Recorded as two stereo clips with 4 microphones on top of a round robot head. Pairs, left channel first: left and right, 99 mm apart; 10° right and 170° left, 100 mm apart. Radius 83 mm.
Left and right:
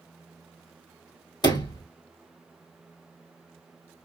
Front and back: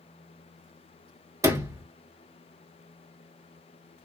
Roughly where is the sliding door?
Behind left.